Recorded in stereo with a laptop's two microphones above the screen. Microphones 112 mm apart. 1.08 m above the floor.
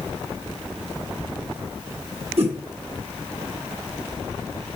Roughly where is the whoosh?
Right.